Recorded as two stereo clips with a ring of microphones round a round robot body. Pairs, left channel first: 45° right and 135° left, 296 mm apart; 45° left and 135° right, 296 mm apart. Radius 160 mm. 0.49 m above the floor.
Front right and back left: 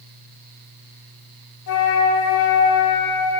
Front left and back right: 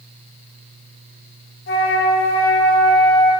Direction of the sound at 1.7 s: 5° right.